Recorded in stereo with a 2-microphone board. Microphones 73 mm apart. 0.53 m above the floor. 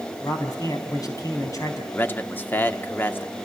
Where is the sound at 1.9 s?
25° left (ahead or behind), 0.9 m.